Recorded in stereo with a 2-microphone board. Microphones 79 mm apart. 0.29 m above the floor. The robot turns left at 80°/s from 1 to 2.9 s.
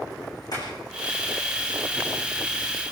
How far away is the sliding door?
About 9.5 m.